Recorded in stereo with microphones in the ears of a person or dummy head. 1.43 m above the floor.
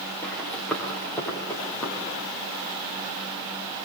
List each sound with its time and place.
0.2 s running footsteps: 5° left (ahead or behind), 8.5 m; by 2.2 s 15° left (ahead or behind), 9 m